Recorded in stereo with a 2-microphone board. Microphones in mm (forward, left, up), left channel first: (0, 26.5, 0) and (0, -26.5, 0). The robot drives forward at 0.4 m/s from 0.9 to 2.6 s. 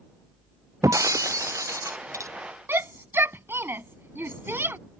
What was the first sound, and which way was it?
Breaking glass, 85° right.